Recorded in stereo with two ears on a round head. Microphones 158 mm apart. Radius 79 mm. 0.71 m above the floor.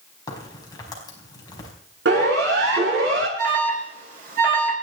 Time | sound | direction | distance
0.3 | a crack | 20° left (ahead or behind) | 4.5 m
2.0 | a siren | 70° right (ahead or behind) | 8.5 m
3.4 | an alarm | 50° right (ahead or behind) | 5 m